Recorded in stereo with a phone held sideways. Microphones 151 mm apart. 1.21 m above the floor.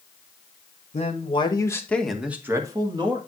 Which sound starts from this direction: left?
A man speaking, at 0.9 s.